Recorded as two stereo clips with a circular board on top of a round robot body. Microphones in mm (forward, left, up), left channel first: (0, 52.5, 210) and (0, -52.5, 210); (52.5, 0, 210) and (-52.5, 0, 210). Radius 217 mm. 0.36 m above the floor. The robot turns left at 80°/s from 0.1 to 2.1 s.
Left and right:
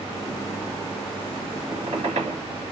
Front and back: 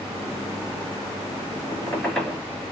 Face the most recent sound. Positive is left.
turn(degrees=-85)